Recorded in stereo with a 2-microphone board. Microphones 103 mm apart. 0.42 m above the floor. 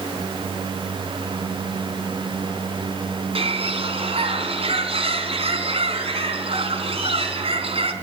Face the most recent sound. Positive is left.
turn(degrees=-70)  # may be behind; listen again after turning